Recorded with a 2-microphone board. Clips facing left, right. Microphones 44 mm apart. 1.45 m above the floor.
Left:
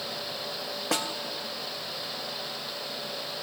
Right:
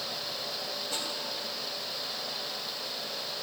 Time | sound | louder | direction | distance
0.9 | a snare drum | left 9 dB | 75° left (ahead or behind) | 1.3 m